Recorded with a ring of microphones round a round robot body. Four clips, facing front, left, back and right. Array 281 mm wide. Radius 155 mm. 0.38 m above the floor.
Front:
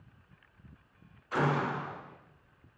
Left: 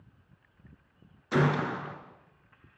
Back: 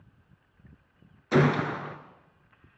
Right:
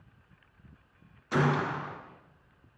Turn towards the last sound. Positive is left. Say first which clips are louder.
# left 1 dB, back 6 dB
turn(degrees=175)